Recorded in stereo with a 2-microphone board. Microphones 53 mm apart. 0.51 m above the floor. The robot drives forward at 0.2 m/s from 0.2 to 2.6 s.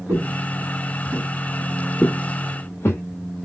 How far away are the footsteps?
About 1.1 m.